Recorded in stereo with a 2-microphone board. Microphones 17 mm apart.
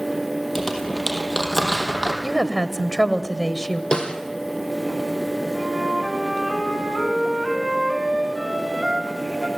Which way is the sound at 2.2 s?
5° left (ahead or behind).